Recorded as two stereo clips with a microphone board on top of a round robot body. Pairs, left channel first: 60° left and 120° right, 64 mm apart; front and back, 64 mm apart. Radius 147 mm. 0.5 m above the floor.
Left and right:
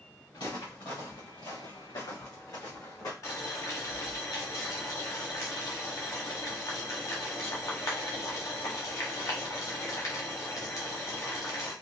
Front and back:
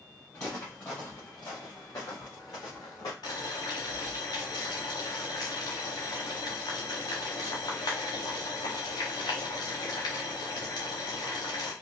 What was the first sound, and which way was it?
Footsteps, 60° left.